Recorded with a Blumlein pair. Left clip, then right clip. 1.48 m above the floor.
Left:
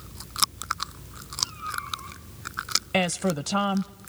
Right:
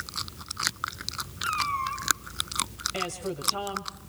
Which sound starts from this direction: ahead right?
A cat meowing, at 1.4 s.